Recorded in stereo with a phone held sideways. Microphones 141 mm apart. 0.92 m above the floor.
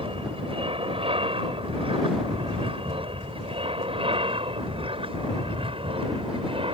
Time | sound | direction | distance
0.0 | an aircraft | 40° right (ahead or behind) | ?